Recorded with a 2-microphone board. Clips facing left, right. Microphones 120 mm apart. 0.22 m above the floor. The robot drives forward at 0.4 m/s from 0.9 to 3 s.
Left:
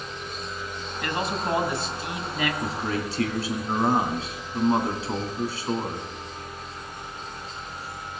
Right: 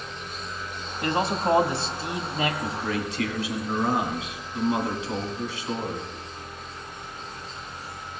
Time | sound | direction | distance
1.0 | a man speaking | 30° right (ahead or behind) | 1.2 m
2.6 | a man speaking | 35° left (ahead or behind) | 2 m